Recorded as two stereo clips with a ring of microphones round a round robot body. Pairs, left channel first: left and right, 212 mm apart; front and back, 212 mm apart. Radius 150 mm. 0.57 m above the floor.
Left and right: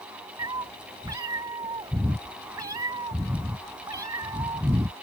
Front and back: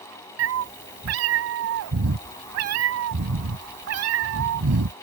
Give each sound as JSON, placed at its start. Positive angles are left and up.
{"t": 0.4, "sound": "a cat meowing", "azimuth_deg": -170}